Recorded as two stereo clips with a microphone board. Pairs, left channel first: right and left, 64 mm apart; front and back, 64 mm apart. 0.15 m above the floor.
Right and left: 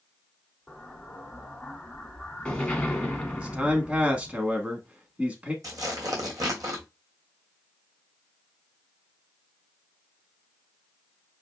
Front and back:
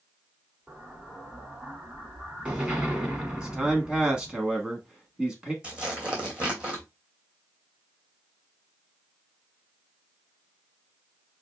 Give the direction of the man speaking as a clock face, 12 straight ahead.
8 o'clock.